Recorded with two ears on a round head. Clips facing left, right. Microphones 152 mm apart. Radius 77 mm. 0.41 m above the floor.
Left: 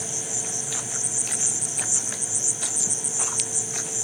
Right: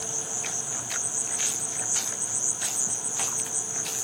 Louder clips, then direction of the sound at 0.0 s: Left 2 dB; 20° left (ahead or behind).